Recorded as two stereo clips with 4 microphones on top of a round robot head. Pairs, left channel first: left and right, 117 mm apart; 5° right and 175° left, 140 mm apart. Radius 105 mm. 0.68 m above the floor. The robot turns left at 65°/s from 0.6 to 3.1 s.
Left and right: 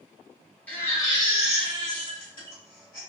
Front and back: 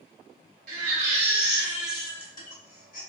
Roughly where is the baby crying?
Behind.